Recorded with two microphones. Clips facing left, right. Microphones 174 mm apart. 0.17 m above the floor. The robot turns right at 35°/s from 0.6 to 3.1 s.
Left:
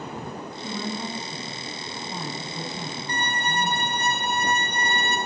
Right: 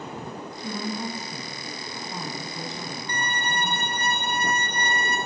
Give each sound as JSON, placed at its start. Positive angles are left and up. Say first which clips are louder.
{"t": 0.6, "sound": "a woman speaking", "louder": "right 1 dB", "side_deg": -10, "distance_m": 1.1}
{"t": 3.1, "sound": "a violin", "louder": "left 2 dB", "side_deg": 30, "distance_m": 0.7}